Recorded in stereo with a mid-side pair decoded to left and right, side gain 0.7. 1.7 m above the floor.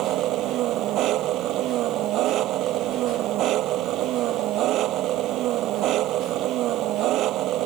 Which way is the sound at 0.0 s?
55° right.